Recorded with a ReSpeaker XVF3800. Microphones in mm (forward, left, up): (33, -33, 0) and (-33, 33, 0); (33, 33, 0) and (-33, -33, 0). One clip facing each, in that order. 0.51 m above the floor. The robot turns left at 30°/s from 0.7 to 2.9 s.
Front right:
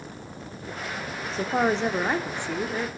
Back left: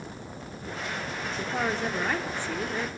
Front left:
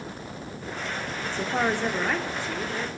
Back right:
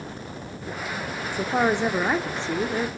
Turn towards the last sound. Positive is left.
turn(degrees=-115)